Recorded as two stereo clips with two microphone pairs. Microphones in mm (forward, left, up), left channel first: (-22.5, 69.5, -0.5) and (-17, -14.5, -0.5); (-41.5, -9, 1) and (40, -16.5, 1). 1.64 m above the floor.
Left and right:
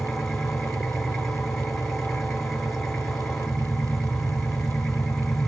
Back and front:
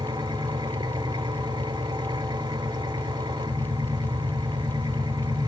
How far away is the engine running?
About 4.5 m.